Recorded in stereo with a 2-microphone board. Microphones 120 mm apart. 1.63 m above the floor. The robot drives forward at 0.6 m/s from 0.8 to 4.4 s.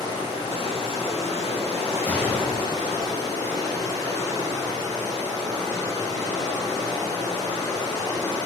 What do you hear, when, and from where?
0.0 s running water: 50° left (ahead or behind), 1.1 m; by 8.5 s 25° left (ahead or behind), 1.9 m
2.1 s a gunshot: 15° left (ahead or behind), 0.7 m; by 3.1 s 10° left (ahead or behind), 0.7 m